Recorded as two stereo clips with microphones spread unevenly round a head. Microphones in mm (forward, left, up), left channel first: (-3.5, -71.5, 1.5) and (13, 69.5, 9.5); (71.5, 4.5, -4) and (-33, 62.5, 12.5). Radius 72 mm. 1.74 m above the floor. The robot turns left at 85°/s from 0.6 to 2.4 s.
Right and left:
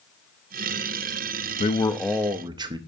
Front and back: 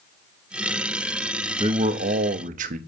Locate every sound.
1.6 s a man speaking: 150° right, 0.6 m; by 2.8 s 145° left, 0.6 m